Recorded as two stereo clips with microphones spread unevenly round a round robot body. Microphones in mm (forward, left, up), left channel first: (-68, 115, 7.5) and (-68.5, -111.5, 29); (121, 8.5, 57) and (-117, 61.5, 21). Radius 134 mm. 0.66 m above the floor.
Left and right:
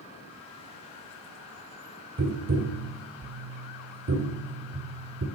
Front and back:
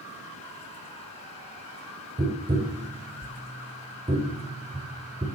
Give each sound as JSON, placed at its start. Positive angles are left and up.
{"t": 2.2, "sound": "tapping", "azimuth_deg": -125, "distance_m": 2.5}